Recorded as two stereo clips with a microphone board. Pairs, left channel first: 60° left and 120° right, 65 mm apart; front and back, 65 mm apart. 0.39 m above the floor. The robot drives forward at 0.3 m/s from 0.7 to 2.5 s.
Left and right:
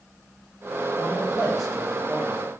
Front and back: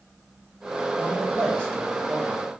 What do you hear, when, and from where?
1.0 s a man speaking: 30° right, 1.2 m; by 2.4 s 60° right, 1.1 m